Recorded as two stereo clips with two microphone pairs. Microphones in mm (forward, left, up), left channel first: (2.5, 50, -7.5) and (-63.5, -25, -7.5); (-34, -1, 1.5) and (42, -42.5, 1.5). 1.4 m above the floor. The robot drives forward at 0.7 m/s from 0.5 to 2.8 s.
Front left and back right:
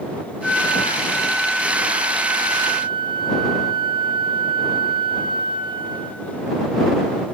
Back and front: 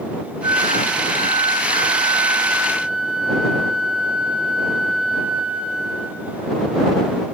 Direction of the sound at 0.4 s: 30° right.